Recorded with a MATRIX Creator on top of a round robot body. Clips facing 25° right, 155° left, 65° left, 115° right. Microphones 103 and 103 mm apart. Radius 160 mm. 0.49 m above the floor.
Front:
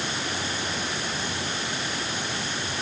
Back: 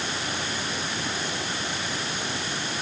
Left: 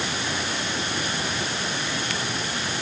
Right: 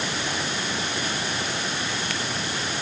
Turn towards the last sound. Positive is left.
No sound to turn to.